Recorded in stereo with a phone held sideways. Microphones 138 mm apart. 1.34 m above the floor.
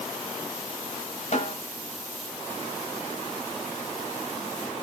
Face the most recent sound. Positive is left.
turn(degrees=60)  # may be behind; listen again after turning